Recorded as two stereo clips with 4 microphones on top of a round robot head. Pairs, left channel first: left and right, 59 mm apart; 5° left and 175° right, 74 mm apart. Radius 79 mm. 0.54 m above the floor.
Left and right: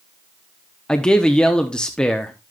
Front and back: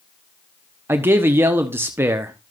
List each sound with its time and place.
0.9 s a man speaking: 155° left, 1.1 m